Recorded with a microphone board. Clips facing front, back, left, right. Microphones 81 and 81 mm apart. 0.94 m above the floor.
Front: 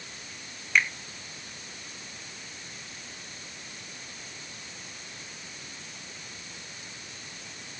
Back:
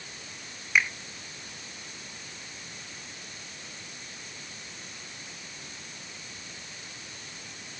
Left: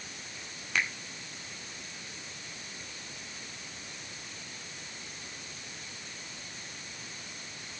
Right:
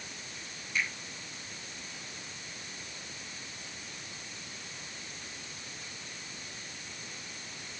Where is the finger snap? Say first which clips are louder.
Even, left 2 dB; 100° left, 2 m.